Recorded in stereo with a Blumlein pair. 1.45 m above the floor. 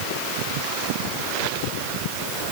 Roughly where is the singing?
No singing in this recording.